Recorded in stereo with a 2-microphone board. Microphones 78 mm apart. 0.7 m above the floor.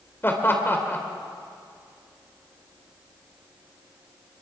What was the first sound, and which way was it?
Laughter, 30° left (ahead or behind).